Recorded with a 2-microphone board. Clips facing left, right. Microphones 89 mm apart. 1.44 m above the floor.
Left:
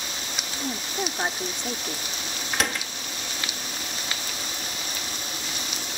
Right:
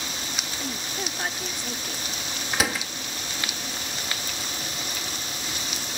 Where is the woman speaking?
25° left (ahead or behind).